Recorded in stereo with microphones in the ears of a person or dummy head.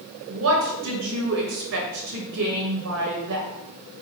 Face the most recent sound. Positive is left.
turn(degrees=-55)  # may be behind; listen again after turning